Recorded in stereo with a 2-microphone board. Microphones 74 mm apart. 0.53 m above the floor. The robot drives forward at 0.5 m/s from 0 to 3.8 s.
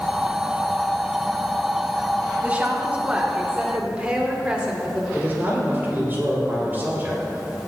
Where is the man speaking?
30° right (ahead or behind), 2.5 m.